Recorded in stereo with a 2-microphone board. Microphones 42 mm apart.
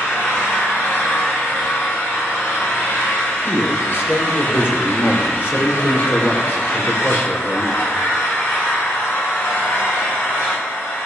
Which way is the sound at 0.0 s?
85° left.